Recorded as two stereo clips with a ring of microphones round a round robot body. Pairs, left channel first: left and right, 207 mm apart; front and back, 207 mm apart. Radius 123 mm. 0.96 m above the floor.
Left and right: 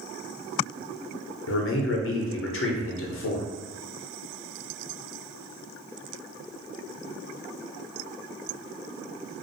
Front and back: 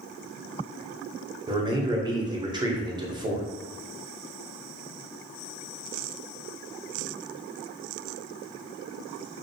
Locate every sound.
1.5 s a man speaking: 110° left, 0.6 m